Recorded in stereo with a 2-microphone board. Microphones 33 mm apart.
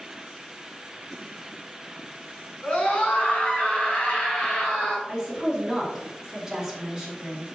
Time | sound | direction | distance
2.6 | a scream | 35° left (ahead or behind) | 1.4 m
5.1 | a woman speaking | 15° right (ahead or behind) | 1.7 m